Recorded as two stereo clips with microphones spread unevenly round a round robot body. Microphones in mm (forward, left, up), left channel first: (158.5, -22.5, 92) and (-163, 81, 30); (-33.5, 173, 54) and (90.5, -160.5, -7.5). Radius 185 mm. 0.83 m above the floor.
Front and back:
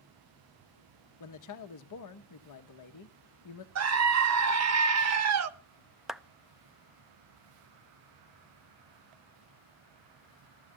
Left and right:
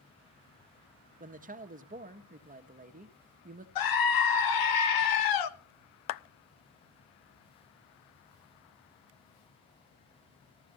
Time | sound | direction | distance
1.2 | a man speaking | 25° right | 1.2 m
3.8 | a scream | 140° left | 1.5 m
6.1 | a clap | 80° left | 0.6 m